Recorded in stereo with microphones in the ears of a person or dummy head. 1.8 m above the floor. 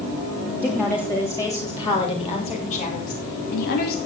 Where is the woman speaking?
10° left (ahead or behind), 3 m; by 4.0 s 60° left (ahead or behind), 3.5 m.